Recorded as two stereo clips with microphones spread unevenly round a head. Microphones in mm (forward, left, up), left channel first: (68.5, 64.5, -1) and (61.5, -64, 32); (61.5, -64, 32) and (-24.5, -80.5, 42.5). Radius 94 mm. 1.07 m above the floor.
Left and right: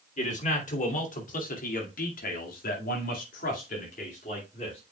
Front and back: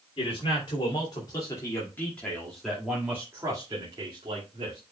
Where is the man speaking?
60° left, 3 m; by 4.8 s 140° left, 2.5 m.